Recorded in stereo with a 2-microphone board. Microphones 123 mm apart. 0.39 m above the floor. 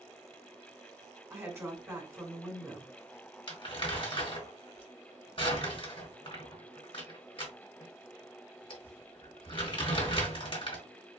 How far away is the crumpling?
About 1.9 m.